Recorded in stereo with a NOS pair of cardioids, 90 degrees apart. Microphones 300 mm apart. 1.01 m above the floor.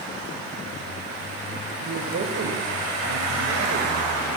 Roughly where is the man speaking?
Ahead right.